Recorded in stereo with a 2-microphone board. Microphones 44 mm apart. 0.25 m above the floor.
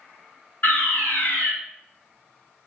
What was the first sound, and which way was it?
A fire alarm, 50° left (ahead or behind).